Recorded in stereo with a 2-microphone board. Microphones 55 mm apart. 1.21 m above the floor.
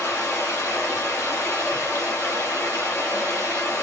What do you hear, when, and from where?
0.0 s running water: 75° left (ahead or behind), 2 m